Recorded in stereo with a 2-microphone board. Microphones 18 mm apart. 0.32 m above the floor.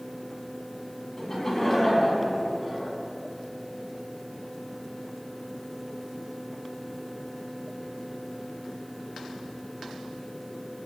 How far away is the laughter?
About 3 m.